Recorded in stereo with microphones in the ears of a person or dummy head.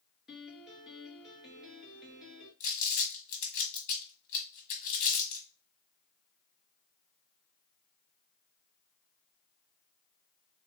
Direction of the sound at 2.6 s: 40° left (ahead or behind).